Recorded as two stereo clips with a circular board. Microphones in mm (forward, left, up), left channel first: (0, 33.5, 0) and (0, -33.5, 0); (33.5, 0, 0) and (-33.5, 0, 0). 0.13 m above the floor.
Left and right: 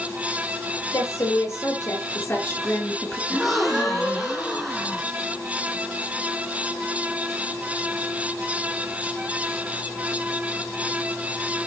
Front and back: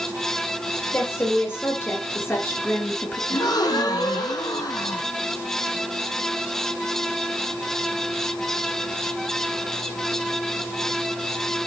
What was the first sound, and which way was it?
A woman speaking, 55° left.